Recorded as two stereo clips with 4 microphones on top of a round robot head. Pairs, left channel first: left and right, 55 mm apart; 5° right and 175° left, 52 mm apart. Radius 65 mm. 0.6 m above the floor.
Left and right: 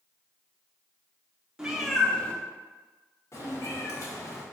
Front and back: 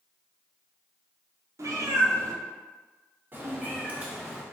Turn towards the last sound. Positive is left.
turn(degrees=105)